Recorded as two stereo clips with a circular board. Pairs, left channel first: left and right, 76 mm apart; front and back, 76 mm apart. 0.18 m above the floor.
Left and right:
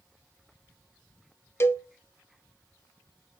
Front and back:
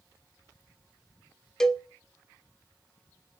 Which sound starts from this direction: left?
A cowbell, at 1.6 s.